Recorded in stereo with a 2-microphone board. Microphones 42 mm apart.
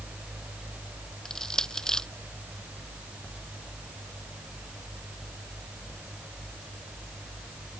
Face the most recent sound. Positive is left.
turn(degrees=15)  # may be behind; listen again after turning